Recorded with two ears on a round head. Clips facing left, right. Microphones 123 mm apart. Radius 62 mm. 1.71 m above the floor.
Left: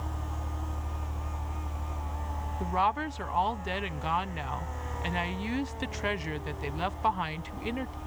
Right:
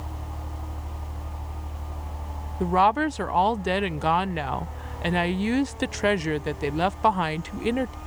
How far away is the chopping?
No chopping in this recording.